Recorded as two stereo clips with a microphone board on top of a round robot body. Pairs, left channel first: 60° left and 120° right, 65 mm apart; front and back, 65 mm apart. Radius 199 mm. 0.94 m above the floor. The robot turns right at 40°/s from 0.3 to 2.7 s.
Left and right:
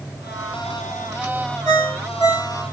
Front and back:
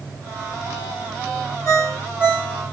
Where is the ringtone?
75° left, 0.5 m; by 2.7 s 115° left, 0.5 m.